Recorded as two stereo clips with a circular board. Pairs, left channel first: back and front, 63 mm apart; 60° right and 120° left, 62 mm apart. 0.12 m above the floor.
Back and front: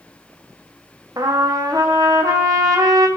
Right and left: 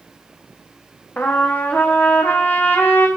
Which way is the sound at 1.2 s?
Straight ahead.